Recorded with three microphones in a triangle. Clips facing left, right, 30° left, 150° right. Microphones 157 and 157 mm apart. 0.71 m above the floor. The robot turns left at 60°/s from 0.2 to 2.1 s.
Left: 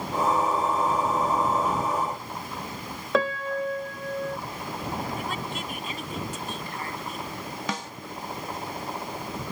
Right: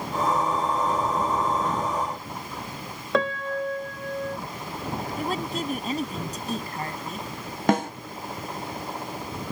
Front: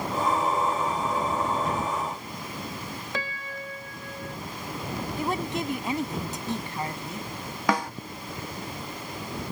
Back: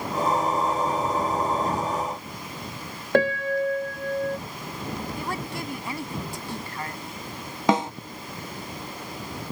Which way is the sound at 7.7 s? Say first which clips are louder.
Right 13 dB, back 4 dB; 85° right.